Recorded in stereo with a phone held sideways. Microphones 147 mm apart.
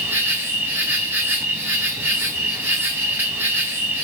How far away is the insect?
About 0.9 m.